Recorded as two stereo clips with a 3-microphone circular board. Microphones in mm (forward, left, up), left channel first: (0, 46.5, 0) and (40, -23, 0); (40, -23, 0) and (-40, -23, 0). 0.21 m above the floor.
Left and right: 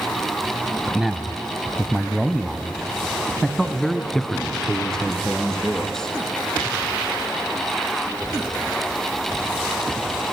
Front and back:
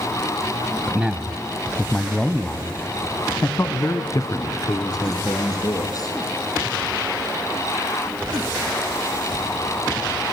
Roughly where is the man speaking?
Behind right.